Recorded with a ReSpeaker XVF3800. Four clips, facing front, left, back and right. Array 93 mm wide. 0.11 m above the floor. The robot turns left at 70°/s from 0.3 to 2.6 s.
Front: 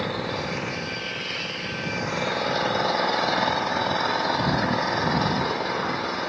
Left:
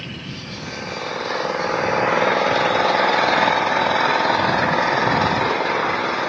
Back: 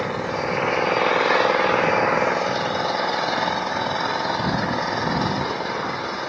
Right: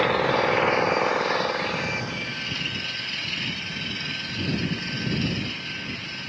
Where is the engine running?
105° right; by 6.3 s 90° left.